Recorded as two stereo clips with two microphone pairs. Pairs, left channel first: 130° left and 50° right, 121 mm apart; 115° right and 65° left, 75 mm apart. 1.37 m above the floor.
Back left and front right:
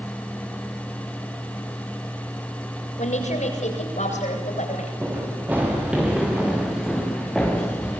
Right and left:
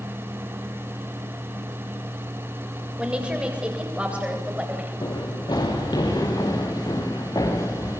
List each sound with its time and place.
3.0 s a woman speaking: 140° left, 7 m
5.0 s running footsteps: 125° right, 6.5 m; by 8.0 s 150° right, 6 m